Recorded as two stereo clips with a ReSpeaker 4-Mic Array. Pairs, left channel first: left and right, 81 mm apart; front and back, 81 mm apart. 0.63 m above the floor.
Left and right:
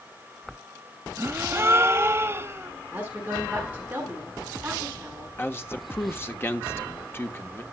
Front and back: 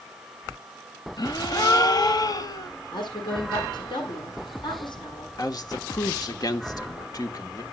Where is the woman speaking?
20° right, 8.5 m.